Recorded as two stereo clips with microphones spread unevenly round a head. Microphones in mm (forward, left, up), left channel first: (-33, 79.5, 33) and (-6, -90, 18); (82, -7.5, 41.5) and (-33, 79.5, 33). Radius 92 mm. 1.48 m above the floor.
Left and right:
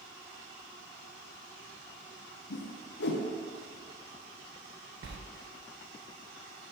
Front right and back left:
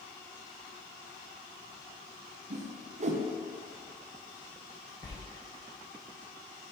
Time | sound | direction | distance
2.5 | a whoosh | 110° left | 0.7 m
5.0 | a sliding door | 105° right | 0.6 m